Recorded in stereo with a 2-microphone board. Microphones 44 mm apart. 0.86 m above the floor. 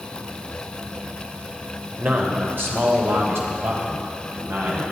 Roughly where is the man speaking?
Right.